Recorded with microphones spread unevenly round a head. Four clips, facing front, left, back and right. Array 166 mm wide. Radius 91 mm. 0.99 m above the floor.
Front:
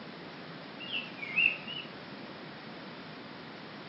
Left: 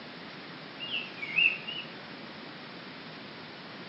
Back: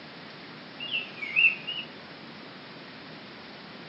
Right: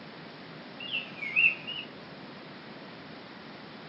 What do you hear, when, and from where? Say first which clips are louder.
0.8 s a bird: right 1 dB, back 2 dB; 125° right, 1.7 m